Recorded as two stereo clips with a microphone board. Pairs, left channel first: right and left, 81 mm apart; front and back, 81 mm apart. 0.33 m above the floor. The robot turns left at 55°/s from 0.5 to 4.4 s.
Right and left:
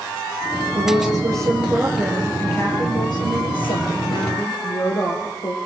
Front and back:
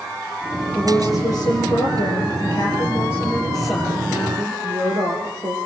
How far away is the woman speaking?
About 7 m.